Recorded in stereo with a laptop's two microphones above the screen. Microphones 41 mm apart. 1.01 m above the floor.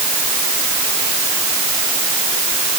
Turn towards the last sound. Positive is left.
No sound to turn to.